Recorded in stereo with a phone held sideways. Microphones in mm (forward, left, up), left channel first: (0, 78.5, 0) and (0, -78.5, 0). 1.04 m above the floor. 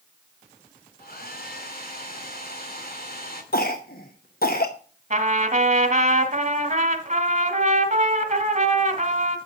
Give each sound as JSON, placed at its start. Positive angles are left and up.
{"t": 1.0, "sound": "a hair dryer", "side_deg": 75, "distance_m": 2.5}
{"t": 3.5, "sound": "a cough", "side_deg": 75, "distance_m": 0.9}
{"t": 5.1, "sound": "a trumpet", "side_deg": -50, "distance_m": 1.6}